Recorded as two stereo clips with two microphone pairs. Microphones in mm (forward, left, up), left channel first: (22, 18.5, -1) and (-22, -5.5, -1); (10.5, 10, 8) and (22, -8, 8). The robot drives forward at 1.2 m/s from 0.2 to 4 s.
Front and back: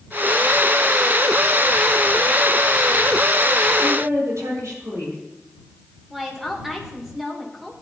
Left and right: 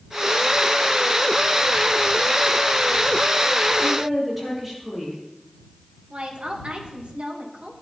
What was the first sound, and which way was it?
A woman speaking, 140° right.